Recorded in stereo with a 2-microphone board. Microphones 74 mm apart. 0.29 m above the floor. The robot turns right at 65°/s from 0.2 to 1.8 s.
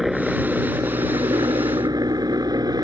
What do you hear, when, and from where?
0.0 s a helicopter: 175° right; by 2.8 s 70° right